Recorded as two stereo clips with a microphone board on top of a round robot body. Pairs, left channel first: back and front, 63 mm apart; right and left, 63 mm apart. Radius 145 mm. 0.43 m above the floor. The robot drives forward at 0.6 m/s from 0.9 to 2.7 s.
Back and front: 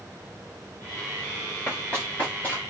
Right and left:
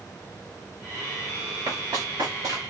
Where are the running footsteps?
110° left, 5.5 m; by 2.6 s 115° left, 6 m.